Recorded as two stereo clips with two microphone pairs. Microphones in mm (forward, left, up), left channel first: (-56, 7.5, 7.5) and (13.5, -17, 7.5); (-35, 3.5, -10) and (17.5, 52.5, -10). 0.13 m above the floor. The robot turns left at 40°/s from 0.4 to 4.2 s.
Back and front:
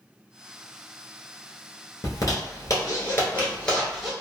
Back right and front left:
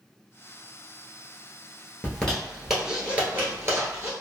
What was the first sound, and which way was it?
A zipper, 155° left.